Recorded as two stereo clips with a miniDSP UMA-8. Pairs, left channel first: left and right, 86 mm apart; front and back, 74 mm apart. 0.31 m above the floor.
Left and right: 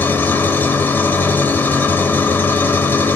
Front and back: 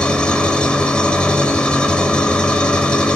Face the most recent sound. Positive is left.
turn(degrees=60)